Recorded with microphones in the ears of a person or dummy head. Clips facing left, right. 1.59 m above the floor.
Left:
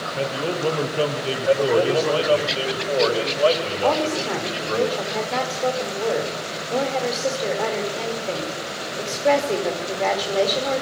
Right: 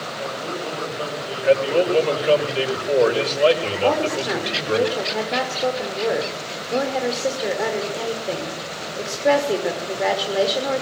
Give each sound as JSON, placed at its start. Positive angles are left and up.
{"t": 0.1, "sound": "a man speaking", "side_deg": 75, "distance_m": 5.5}
{"t": 1.4, "sound": "a man speaking", "side_deg": -35, "distance_m": 6.5}
{"t": 3.8, "sound": "a woman speaking", "side_deg": -10, "distance_m": 6.0}